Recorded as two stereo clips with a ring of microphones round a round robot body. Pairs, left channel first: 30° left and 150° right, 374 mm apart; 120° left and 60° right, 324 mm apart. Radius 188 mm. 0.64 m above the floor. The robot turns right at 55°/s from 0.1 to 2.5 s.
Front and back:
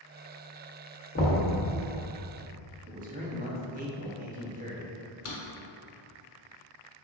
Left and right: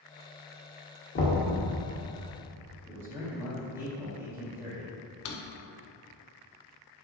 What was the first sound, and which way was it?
Knocking, 80° left.